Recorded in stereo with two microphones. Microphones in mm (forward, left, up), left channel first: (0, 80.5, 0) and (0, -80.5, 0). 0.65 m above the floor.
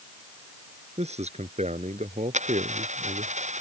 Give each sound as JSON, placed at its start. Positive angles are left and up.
{"t": 1.0, "sound": "a man speaking", "side_deg": -40}
{"t": 2.3, "sound": "a dropped coin", "side_deg": -45}